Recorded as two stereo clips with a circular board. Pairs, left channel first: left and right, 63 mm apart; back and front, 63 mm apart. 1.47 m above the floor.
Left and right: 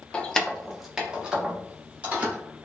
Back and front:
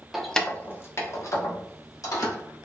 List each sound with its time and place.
0.1 s keys jangling: 70° left, 0.5 m; by 2.4 s 160° right, 1.6 m